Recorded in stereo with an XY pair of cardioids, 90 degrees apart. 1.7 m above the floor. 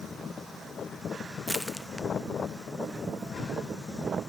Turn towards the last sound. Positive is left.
turn(degrees=-5)